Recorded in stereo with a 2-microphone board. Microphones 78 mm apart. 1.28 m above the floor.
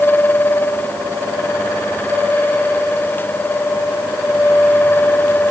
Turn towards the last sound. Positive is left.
No sound to turn to.